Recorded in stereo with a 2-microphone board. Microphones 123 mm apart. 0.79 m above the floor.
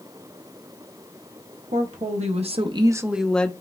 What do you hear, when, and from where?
1.7 s a woman speaking: 75° right (ahead or behind), 1.1 m; by 3.5 s 15° left (ahead or behind), 0.7 m